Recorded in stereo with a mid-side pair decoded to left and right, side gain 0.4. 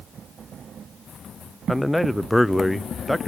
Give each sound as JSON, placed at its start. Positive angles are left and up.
{"t": 1.7, "sound": "a man speaking", "azimuth_deg": 10, "distance_m": 0.7}